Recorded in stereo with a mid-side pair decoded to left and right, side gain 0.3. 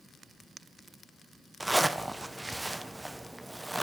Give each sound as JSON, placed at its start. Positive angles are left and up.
{"t": 1.6, "sound": "a zipper", "azimuth_deg": -15, "distance_m": 0.5}